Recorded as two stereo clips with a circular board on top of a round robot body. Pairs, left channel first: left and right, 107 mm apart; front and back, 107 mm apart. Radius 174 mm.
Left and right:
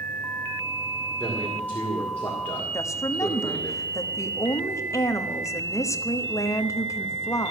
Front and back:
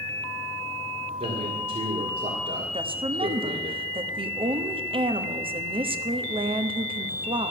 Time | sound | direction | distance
1.2 | a man speaking | 165° left | 2 m
2.7 | a woman speaking | 150° left | 1.4 m